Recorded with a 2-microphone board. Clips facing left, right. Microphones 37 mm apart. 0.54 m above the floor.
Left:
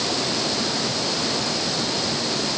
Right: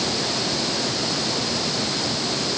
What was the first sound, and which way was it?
Only background noise.